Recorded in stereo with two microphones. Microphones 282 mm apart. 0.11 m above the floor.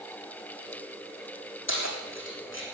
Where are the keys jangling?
45° left (ahead or behind), 4 m.